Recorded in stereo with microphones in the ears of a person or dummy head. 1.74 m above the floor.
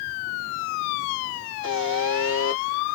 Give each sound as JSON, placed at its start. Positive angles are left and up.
{"t": 1.6, "sound": "a buzzer", "side_deg": -20, "distance_m": 1.2}